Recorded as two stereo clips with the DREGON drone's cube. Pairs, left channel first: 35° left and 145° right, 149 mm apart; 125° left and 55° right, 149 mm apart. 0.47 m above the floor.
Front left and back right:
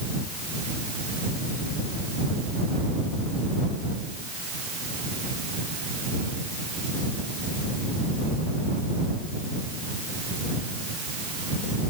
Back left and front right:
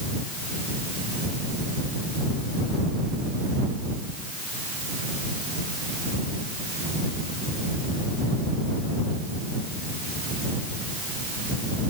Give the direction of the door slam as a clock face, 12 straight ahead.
I don't hear a door slam.